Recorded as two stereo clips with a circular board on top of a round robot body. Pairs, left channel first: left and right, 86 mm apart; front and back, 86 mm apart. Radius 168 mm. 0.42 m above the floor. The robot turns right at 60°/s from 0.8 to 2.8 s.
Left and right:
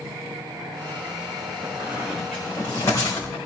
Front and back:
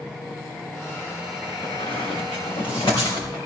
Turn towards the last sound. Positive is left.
turn(degrees=35)